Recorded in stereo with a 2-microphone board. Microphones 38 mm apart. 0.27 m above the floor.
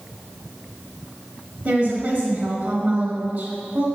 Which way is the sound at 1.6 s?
50° right (ahead or behind).